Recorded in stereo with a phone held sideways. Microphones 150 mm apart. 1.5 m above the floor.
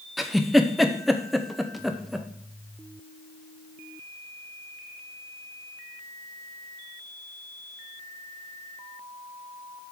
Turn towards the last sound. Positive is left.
turn(degrees=0)  # may be behind; listen again after turning